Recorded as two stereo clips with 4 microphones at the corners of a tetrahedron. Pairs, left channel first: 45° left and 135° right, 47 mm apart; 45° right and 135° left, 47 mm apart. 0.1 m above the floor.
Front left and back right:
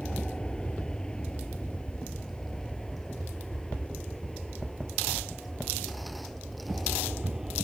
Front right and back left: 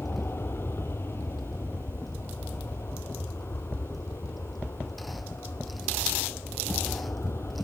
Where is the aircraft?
25° right; by 7.6 s 55° right.